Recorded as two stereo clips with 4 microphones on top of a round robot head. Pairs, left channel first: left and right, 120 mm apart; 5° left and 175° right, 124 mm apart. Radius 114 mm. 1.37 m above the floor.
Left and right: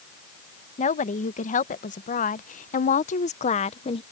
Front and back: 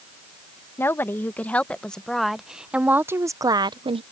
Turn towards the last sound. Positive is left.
turn(degrees=140)